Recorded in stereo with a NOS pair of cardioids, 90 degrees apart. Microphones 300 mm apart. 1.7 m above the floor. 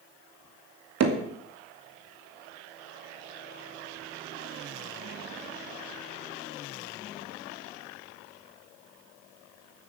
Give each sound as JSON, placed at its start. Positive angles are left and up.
{"t": 1.0, "sound": "hammering", "azimuth_deg": -60, "distance_m": 2.5}